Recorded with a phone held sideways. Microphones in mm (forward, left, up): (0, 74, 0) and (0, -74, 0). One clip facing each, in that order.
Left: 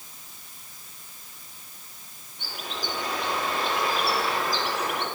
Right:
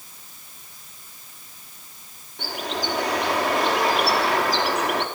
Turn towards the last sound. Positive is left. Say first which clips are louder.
# right 7 dB
turn(degrees=-80)